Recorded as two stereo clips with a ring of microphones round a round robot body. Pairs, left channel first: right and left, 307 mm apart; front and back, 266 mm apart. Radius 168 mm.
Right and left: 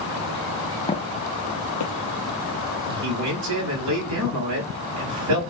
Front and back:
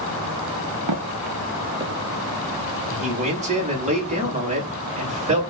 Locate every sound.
0.9 s footsteps: 165° right, 1.2 m; by 1.9 s 100° right, 1.1 m
2.9 s a man speaking: 120° left, 4 m